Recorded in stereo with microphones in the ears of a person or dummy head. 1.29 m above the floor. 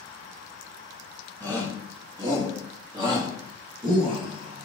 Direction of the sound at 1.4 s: 15° right (ahead or behind).